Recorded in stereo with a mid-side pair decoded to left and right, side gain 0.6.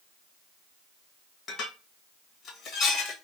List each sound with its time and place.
1.5 s dishes clattering: 45° left, 1.6 m